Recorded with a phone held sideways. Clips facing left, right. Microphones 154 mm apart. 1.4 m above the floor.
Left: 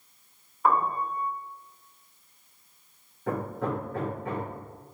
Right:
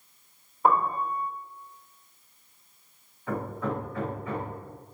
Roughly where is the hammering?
Left.